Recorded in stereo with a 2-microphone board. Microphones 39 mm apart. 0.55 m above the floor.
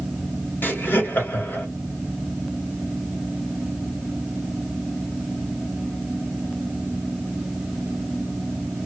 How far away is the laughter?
About 1.3 m.